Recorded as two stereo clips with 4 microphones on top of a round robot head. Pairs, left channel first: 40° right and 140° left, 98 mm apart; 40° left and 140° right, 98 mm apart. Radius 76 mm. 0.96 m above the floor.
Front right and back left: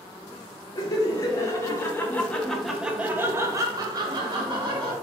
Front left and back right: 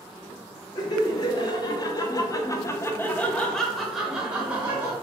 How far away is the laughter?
About 1.4 m.